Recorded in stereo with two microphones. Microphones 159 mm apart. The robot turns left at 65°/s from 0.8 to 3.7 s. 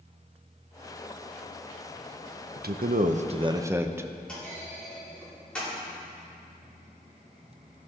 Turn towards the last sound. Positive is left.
turn(degrees=5)  # may be behind; listen again after turning